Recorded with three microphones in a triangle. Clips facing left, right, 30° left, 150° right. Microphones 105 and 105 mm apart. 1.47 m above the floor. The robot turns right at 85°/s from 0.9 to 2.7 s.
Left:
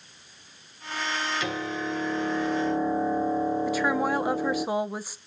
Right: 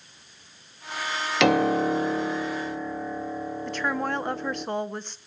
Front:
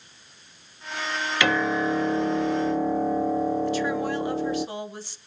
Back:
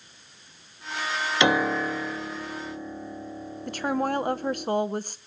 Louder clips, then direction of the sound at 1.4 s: Right 10 dB, even; 80° right.